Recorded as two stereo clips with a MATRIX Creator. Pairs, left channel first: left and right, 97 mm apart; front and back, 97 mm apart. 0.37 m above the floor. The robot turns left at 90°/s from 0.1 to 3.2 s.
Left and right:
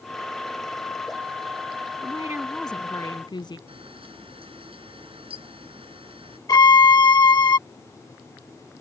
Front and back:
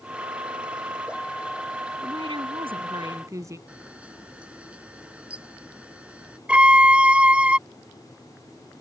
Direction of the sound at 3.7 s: 100° right.